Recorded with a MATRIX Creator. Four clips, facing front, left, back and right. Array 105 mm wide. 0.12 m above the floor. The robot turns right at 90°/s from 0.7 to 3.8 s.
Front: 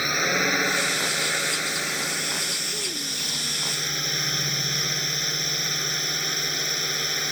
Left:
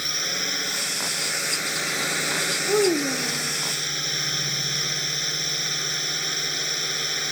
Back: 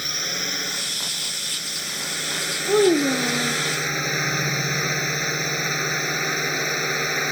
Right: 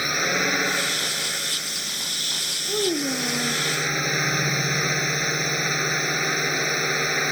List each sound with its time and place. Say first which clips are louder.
0.0 s a drone: right 8 dB, front 8 dB; 50° right; by 7.3 s 130° right
2.7 s a child speaking: left 4 dB, back 19 dB; 150° left; by 3.6 s 125° right